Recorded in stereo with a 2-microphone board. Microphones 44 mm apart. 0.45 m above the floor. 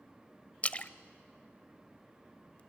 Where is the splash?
30° left (ahead or behind), 0.6 m.